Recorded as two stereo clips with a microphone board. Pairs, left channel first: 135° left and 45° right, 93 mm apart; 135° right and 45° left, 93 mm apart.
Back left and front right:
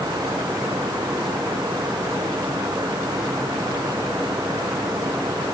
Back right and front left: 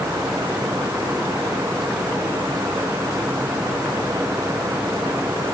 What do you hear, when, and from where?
Only background noise.